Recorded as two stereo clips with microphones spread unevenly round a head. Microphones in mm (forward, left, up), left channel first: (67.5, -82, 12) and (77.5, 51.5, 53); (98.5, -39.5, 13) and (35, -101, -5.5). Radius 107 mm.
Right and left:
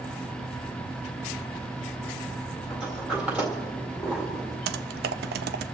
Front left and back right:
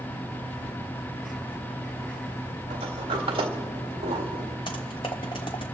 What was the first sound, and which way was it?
A sliding door, 175° left.